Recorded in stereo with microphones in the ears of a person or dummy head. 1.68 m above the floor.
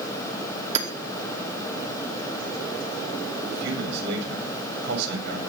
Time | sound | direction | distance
0.8 | hammering | 40° right (ahead or behind) | 2.5 m
3.5 | a man speaking | 55° right (ahead or behind) | 8 m